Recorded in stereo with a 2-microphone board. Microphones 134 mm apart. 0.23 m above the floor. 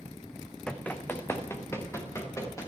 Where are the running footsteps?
5° left (ahead or behind), 1.0 m; by 2.7 s 20° left (ahead or behind), 3.5 m.